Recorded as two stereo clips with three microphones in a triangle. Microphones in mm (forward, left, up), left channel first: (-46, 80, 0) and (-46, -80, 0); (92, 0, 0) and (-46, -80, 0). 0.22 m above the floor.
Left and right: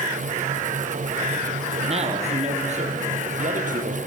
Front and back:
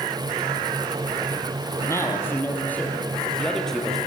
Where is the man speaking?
45° right, 5.5 m; by 4.0 s 60° right, 4.5 m.